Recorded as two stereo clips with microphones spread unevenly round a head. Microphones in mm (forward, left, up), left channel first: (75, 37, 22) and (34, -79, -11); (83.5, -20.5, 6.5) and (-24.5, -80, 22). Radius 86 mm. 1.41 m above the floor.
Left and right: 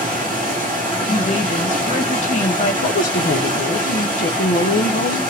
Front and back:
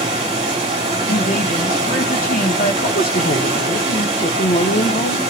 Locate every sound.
0.0 s running water: 175° right, 2.5 m
1.1 s a woman speaking: 45° left, 1.4 m
2.8 s a woman speaking: 65° left, 0.7 m